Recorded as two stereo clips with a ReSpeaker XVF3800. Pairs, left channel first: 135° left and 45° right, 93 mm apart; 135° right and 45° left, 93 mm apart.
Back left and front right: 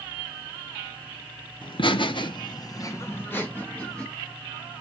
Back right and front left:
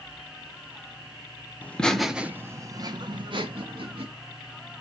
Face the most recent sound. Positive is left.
turn(degrees=55)